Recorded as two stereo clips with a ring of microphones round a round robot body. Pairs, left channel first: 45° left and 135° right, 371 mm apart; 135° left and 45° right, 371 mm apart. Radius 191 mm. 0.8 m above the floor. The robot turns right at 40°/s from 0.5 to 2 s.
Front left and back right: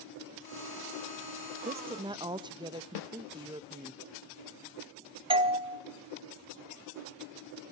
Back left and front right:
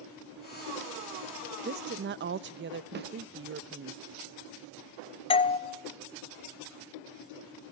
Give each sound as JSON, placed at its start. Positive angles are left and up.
{"t": 1.6, "sound": "a woman speaking", "azimuth_deg": -80, "distance_m": 0.5}
{"t": 3.0, "sound": "a snare drum", "azimuth_deg": 20, "distance_m": 1.1}
{"t": 5.3, "sound": "a doorbell", "azimuth_deg": 180, "distance_m": 0.9}